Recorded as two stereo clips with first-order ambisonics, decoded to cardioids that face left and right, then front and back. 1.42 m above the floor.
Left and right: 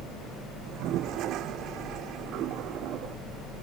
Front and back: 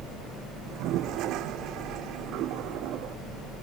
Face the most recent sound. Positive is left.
turn(degrees=-135)